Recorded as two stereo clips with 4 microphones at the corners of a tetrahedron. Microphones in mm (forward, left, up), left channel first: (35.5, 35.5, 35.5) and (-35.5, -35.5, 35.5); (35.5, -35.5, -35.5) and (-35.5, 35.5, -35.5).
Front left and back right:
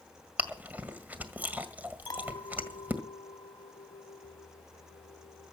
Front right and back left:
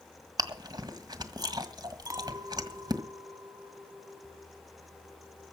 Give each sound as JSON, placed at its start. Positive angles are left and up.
{"t": 0.4, "sound": "chewing", "azimuth_deg": 160, "distance_m": 1.7}
{"t": 2.1, "sound": "a clink", "azimuth_deg": 85, "distance_m": 1.8}